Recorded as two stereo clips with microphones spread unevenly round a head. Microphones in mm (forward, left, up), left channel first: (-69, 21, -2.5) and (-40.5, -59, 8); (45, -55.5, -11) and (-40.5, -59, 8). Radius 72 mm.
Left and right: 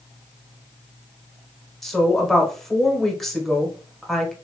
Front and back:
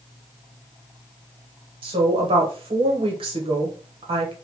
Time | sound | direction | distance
1.8 | a woman speaking | 165° right | 1.3 m